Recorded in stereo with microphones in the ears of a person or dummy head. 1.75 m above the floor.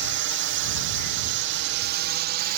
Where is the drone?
55° right (ahead or behind); by 2.6 s 50° right (ahead or behind).